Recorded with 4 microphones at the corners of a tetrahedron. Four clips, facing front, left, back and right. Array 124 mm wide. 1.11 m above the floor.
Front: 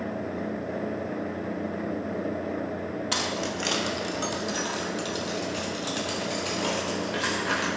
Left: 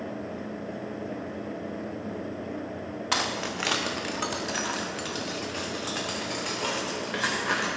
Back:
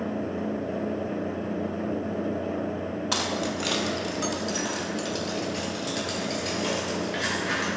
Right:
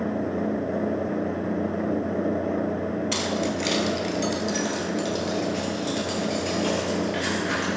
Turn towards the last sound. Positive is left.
turn(degrees=65)